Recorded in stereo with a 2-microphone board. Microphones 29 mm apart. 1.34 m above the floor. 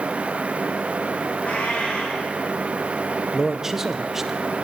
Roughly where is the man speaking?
Centre.